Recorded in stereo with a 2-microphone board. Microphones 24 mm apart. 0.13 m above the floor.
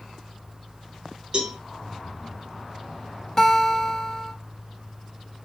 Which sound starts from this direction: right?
A cowbell, at 1.3 s.